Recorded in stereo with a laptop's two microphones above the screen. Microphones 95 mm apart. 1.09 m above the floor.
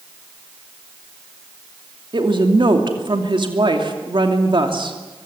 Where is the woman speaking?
60° right (ahead or behind), 2.5 m.